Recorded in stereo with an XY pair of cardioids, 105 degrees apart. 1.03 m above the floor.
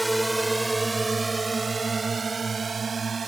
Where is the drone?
15° right; by 3.3 s 40° right.